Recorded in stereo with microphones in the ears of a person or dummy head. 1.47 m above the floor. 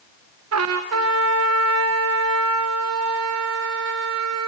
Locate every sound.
0.5 s a trumpet: 75° right (ahead or behind), 0.8 m